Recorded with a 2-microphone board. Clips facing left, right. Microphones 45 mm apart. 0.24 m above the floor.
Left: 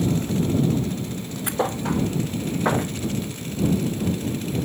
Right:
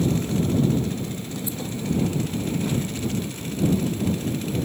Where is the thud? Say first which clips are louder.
Left 6 dB; 60° left (ahead or behind).